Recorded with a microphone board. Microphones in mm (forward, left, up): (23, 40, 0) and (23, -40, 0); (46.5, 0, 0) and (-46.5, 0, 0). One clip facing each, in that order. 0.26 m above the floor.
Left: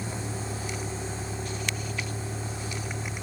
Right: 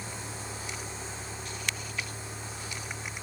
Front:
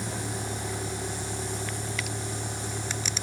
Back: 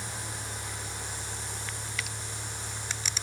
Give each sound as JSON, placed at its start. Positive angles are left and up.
{"t": 0.0, "sound": "a vehicle", "azimuth_deg": 30}